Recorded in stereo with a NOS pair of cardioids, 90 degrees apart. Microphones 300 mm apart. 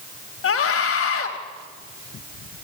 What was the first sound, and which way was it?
A scream, 55° left.